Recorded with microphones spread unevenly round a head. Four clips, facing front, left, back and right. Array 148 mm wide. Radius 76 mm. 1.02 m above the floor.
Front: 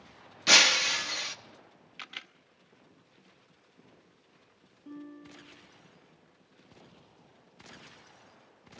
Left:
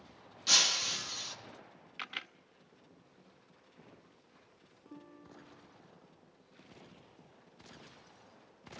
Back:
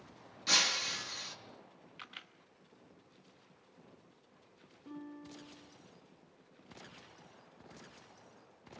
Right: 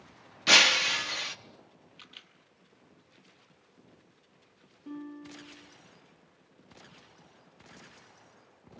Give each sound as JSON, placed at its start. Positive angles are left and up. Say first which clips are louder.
{"t": 0.5, "sound": "breaking glass", "louder": "right 11 dB, front 10 dB", "azimuth_deg": -50, "distance_m": 1.0}
{"t": 2.0, "sound": "a camera shutter", "louder": "left 15 dB, front 6 dB", "azimuth_deg": 50, "distance_m": 0.9}
{"t": 4.8, "sound": "a guitar", "louder": "right 11 dB, front 2 dB", "azimuth_deg": -65, "distance_m": 9.5}